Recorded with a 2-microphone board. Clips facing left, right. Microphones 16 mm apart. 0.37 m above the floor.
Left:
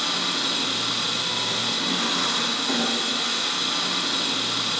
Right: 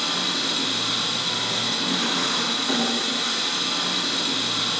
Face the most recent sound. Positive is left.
turn(degrees=10)  # may be behind; listen again after turning